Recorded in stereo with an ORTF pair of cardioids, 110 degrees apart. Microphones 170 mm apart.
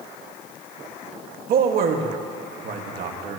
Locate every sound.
1.5 s a man speaking: 60° right, 1.9 m